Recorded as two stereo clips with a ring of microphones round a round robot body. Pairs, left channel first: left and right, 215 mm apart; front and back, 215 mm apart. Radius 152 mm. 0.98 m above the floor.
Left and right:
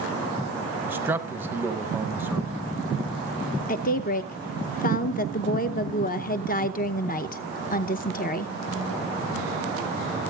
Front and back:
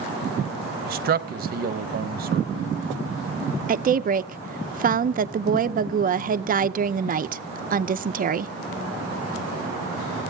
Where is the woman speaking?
135° left, 0.7 m.